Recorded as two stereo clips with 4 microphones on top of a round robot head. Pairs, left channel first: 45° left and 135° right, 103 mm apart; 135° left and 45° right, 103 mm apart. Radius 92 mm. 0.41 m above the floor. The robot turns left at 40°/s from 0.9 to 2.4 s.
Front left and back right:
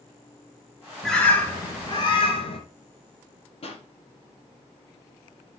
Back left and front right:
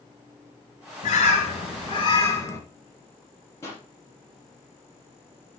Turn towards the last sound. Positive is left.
turn(degrees=75)